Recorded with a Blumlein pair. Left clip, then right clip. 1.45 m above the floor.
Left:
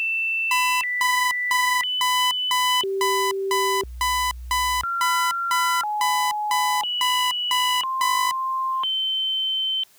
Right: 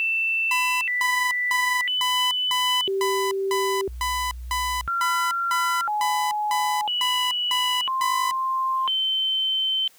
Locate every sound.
0.5 s an alarm clock: 10° left